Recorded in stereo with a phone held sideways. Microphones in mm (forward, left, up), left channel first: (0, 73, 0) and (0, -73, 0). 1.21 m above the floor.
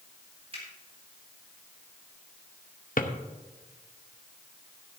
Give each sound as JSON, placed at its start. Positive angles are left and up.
{"t": 0.5, "sound": "a finger snap", "side_deg": -45, "distance_m": 4.0}
{"t": 3.0, "sound": "a drawer", "side_deg": 70, "distance_m": 0.9}